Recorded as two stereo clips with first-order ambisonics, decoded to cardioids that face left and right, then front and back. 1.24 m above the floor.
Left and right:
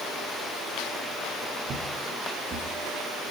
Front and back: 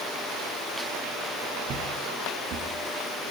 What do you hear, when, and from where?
1.6 s footsteps: 140° right, 3.5 m; by 2.7 s 150° right, 3 m